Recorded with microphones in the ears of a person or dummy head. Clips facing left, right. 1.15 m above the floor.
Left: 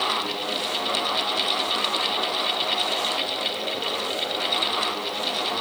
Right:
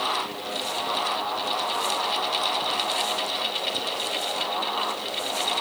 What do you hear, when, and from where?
Only background noise.